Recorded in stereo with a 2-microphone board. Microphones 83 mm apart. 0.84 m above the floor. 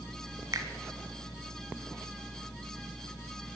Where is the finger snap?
40° right (ahead or behind), 1.5 m.